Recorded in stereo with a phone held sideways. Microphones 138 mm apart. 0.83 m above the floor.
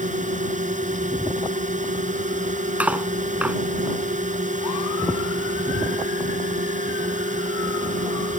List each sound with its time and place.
0.0 s a drone: 65° right (ahead or behind)
2.8 s cutlery clinking: 10° right (ahead or behind)